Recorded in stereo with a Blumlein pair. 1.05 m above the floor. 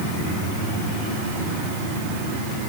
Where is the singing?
I don't hear singing.